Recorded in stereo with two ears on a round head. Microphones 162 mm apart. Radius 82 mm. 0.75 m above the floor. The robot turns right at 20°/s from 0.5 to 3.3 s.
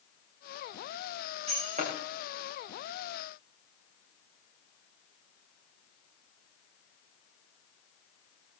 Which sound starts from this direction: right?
Breaking glass, at 1.5 s.